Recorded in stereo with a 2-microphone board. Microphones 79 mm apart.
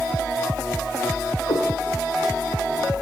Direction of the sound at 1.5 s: 75° left (ahead or behind).